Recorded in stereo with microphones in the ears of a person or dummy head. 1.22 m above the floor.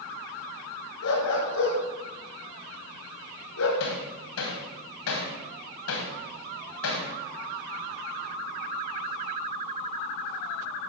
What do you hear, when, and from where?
1.0 s a dog barking: 75° left (ahead or behind), 4.5 m
3.8 s hammering: 75° left (ahead or behind), 3 m